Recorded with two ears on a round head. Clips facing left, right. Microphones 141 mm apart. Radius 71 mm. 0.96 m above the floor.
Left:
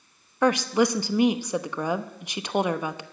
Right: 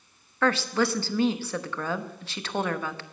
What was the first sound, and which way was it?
A woman speaking, 15° left (ahead or behind).